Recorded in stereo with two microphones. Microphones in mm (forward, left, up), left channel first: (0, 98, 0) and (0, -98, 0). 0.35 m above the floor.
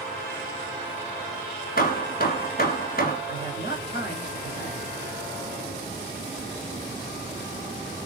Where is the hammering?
50° left (ahead or behind), 1.8 m.